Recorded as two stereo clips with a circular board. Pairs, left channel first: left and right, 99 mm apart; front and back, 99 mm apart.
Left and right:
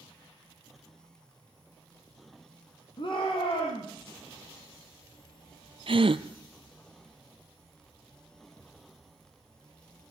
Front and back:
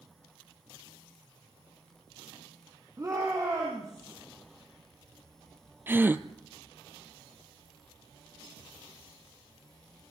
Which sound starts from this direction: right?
A gasp, at 5.9 s.